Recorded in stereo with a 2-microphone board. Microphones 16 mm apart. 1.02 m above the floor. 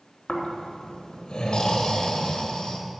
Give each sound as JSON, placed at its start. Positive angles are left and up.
{"t": 0.3, "sound": "snoring", "side_deg": 70, "distance_m": 2.5}